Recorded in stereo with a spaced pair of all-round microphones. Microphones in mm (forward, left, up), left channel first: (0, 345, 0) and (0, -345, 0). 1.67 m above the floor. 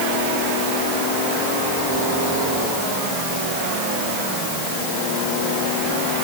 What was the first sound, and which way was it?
Only background noise.